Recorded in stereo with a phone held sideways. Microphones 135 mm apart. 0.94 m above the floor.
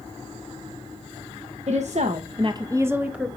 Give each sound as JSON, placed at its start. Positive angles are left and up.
{"t": 1.7, "sound": "a woman speaking", "side_deg": -55, "distance_m": 1.1}